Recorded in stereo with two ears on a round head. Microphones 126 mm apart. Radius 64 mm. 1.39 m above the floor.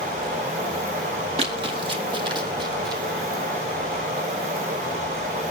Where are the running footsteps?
40° right (ahead or behind), 2 m; by 3.0 s 30° right (ahead or behind), 3 m.